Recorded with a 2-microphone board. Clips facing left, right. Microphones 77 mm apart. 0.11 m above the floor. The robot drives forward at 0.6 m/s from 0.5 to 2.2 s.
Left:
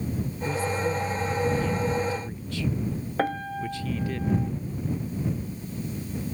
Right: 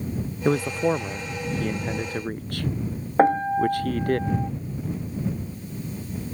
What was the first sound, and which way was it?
A man speaking, 60° right (ahead or behind).